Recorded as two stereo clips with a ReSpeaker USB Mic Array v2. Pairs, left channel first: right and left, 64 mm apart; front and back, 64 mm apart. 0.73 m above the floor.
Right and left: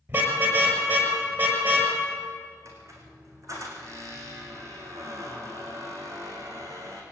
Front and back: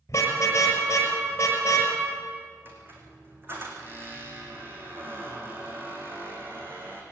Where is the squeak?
125° left, 4.5 m.